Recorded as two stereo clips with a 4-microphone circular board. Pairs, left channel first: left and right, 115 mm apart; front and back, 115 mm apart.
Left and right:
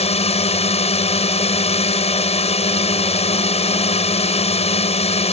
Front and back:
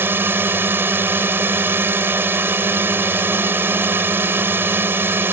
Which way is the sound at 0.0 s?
110° left.